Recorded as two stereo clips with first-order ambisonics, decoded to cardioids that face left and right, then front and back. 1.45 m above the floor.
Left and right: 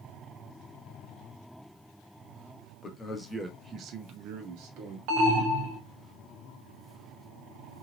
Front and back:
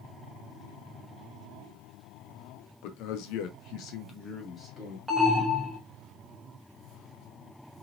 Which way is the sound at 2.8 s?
20° left.